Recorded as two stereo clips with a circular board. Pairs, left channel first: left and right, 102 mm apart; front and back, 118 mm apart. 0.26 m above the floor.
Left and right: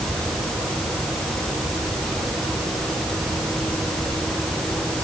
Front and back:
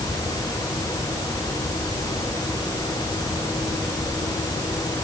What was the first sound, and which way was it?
Only background noise.